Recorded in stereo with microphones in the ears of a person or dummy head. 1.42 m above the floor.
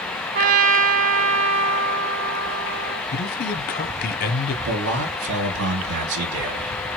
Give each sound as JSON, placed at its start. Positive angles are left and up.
{"t": 0.3, "sound": "a trumpet", "side_deg": -55, "distance_m": 1.2}
{"t": 3.1, "sound": "a man speaking", "side_deg": 50, "distance_m": 0.6}
{"t": 4.7, "sound": "a man speaking", "side_deg": -80, "distance_m": 1.6}